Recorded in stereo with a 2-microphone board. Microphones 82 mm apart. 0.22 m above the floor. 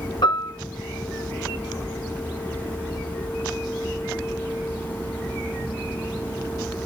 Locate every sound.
0.2 s a piano: 65° left (ahead or behind), 5.5 m